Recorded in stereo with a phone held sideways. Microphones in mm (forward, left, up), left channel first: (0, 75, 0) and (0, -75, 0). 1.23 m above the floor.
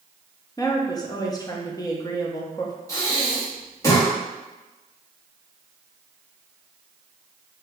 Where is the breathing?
20° left (ahead or behind), 1.9 m.